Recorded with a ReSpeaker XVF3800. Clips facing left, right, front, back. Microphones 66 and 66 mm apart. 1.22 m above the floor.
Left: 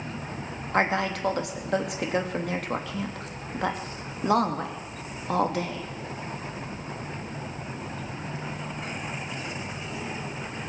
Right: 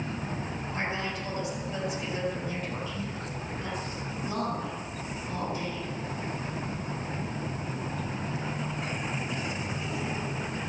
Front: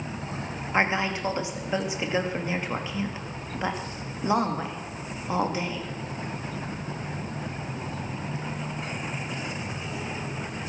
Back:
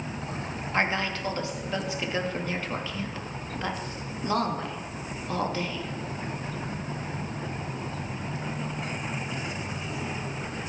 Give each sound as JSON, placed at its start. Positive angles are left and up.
{"t": 0.7, "sound": "a woman speaking", "azimuth_deg": 75, "distance_m": 2.5}